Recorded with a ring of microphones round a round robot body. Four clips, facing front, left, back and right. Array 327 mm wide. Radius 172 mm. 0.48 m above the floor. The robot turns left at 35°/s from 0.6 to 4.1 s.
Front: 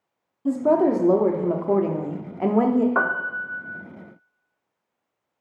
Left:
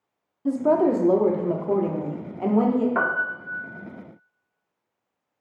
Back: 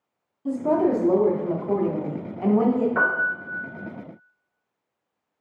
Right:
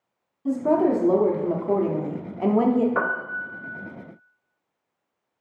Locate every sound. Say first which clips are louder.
0.5 s a woman speaking: left 1 dB, front 2 dB; 50° left, 0.7 m; by 2.9 s 30° right, 0.7 m
3.0 s a piano: left 1 dB, back 1 dB; 25° left, 1.3 m; by 3.6 s straight ahead, 1.3 m